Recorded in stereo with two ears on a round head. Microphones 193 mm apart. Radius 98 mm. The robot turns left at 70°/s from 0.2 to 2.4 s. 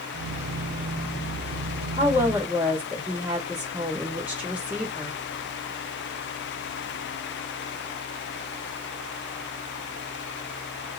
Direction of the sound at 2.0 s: 20° right (ahead or behind).